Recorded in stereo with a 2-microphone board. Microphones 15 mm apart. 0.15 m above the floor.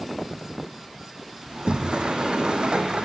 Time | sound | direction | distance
1.5 | a sliding door | 70° right (ahead or behind) | 2.5 m